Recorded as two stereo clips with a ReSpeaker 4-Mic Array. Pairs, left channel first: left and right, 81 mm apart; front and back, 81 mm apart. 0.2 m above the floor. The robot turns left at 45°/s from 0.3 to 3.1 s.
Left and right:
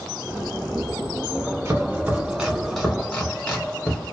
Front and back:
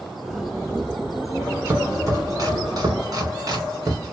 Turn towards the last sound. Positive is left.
turn(degrees=165)